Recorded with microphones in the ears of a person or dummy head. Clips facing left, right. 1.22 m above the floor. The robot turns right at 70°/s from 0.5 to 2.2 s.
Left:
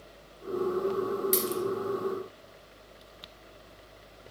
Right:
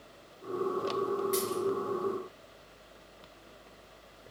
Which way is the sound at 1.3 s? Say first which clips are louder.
Left 1 dB; 50° left (ahead or behind).